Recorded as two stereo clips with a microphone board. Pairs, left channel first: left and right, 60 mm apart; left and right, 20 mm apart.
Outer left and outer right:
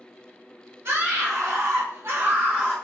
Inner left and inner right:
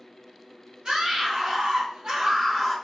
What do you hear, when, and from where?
0.8 s a scream: 45° right (ahead or behind), 1.2 m; by 2.8 s 15° right (ahead or behind), 0.7 m